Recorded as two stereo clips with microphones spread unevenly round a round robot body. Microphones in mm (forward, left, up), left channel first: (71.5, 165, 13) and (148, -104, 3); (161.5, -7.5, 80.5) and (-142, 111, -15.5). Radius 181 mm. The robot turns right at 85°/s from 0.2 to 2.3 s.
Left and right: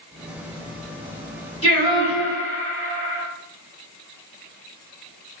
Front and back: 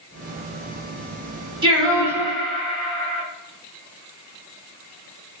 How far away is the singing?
About 1.4 m.